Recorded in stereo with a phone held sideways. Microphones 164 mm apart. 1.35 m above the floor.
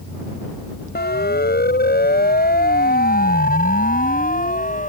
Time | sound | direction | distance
0.9 | a siren | 85° left | ?